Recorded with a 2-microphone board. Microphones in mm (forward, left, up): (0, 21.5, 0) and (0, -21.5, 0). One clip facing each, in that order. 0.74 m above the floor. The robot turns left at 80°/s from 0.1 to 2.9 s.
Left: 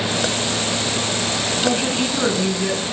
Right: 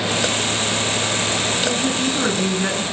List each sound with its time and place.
1.6 s a woman speaking: 50° left, 9.5 m; by 2.8 s 45° right, 9.5 m